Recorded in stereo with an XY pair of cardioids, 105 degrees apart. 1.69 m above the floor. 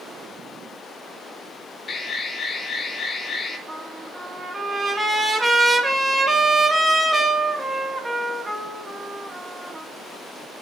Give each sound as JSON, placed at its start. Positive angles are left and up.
{"t": 1.9, "sound": "an alarm", "azimuth_deg": 40, "distance_m": 3.0}
{"t": 3.7, "sound": "a trumpet", "azimuth_deg": -15, "distance_m": 4.0}